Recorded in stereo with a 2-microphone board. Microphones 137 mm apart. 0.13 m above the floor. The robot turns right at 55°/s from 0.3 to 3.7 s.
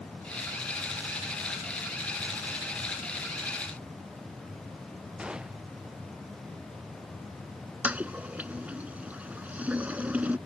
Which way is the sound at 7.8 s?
10° right (ahead or behind).